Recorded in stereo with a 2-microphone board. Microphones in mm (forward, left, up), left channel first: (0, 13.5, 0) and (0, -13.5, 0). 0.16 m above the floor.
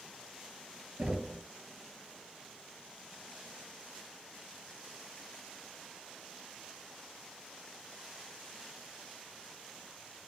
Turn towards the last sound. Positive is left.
turn(degrees=-50)  # may be behind; listen again after turning